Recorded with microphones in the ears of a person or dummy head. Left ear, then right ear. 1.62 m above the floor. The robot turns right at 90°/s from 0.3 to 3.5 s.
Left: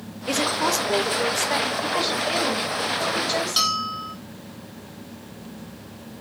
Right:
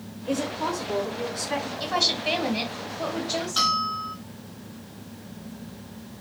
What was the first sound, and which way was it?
A woman speaking, 55° left.